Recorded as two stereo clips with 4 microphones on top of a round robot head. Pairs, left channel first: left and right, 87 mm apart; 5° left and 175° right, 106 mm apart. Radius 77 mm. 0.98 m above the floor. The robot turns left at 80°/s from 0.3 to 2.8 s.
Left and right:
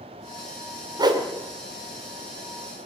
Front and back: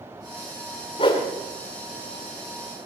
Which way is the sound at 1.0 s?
45° right.